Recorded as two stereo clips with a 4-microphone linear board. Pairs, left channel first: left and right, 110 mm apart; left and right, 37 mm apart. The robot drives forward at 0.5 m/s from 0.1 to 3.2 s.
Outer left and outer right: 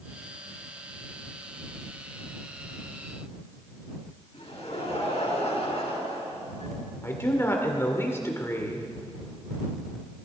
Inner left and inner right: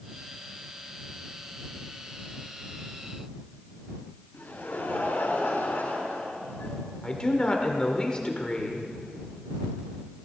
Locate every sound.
4.3 s laughter: 75° left (ahead or behind), 6 m
7.0 s a man speaking: 25° left (ahead or behind), 1.8 m